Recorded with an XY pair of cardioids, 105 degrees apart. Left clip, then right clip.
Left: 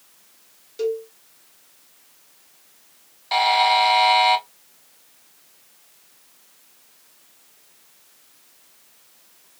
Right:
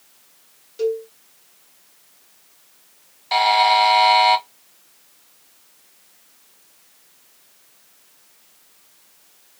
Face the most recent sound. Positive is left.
turn(degrees=-5)